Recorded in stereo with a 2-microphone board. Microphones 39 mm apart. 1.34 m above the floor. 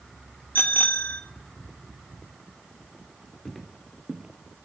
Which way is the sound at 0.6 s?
60° left (ahead or behind).